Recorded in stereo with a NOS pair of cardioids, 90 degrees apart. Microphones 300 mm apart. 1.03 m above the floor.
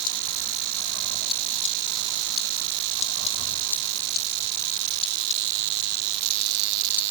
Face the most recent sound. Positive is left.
No sound to turn to.